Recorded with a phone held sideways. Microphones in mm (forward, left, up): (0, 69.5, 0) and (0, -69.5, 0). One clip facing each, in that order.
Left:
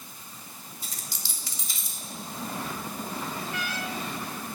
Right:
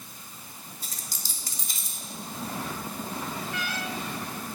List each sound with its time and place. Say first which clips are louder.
0.8 s a dropped coin: even; 45° right (ahead or behind), 1.0 m